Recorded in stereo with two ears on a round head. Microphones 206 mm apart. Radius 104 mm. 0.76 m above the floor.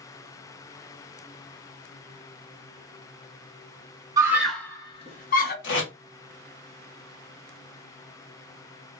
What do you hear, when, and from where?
4.2 s a scream: 15° right (ahead or behind), 0.7 m; by 5.5 s 45° left (ahead or behind), 0.9 m
5.6 s tape being pulled: 50° left (ahead or behind), 1.6 m